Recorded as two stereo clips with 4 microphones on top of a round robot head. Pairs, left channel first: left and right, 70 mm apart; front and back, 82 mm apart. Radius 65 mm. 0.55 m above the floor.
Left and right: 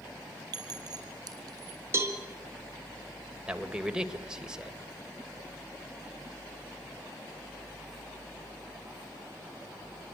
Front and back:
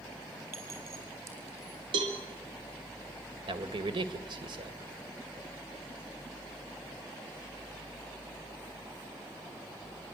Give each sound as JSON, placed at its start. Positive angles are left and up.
{"t": 0.5, "sound": "a clink", "azimuth_deg": -115, "distance_m": 4.5}
{"t": 1.9, "sound": "a cowbell", "azimuth_deg": -140, "distance_m": 2.5}
{"t": 3.5, "sound": "a man speaking", "azimuth_deg": -170, "distance_m": 2.5}